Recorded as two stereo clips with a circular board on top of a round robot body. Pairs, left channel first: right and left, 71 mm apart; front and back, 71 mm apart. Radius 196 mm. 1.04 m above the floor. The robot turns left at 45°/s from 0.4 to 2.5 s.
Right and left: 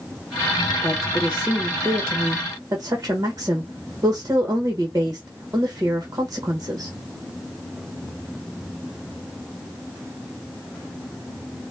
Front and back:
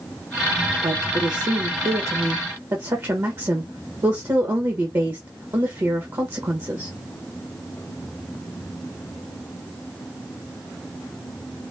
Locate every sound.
0.8 s a woman speaking: 150° right, 1.2 m; by 6.9 s 135° left, 1.2 m